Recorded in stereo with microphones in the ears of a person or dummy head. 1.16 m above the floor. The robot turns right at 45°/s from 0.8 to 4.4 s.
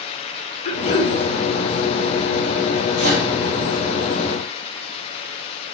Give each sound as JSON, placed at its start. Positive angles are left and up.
{"t": 0.7, "sound": "throat clearing", "side_deg": 35, "distance_m": 0.8}
{"t": 3.0, "sound": "a microwave", "side_deg": -45, "distance_m": 1.6}